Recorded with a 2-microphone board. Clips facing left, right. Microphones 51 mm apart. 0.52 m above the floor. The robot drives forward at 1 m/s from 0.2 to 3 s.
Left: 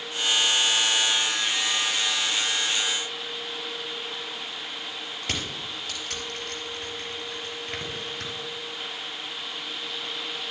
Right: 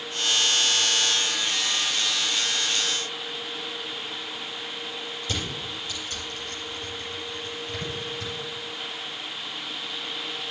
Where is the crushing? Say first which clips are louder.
Left 1 dB; 80° left, 4.5 m.